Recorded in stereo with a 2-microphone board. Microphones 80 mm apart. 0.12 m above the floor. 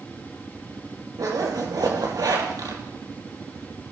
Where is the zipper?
60° right (ahead or behind), 4 m.